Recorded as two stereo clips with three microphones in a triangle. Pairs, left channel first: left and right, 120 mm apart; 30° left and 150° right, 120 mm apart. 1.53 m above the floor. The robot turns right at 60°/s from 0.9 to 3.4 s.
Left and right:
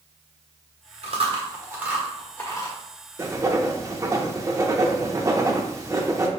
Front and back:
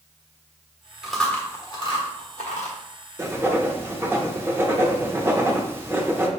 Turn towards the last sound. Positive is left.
turn(degrees=-105)